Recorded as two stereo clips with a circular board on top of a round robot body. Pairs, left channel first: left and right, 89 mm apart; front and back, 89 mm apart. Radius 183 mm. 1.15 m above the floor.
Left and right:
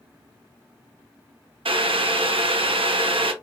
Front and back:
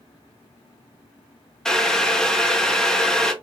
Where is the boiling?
80° right, 0.6 m.